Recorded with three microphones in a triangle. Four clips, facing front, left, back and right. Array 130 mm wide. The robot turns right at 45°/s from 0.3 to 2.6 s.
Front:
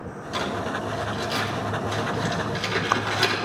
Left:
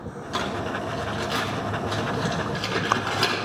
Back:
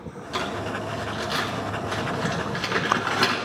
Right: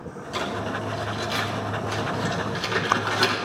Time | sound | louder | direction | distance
0.3 | crumpling | even, front 1 dB | 85° left | 3.5 m